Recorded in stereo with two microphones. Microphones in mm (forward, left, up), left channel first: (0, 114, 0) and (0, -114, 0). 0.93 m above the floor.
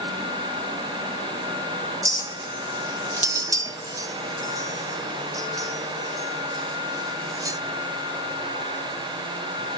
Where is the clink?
15° right (ahead or behind), 0.7 m.